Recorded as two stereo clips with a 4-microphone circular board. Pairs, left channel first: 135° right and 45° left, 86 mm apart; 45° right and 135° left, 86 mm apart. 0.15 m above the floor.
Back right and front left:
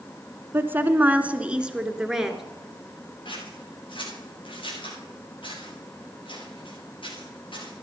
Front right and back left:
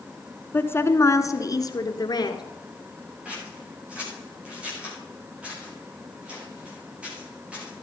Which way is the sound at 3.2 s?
150° right.